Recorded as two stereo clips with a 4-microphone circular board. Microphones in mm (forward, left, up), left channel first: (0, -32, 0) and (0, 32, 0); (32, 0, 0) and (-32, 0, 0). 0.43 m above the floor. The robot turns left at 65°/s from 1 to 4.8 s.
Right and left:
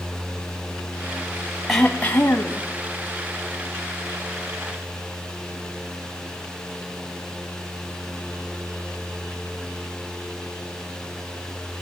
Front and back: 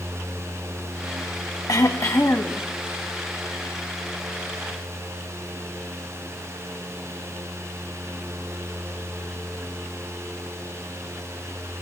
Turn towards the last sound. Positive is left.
turn(degrees=155)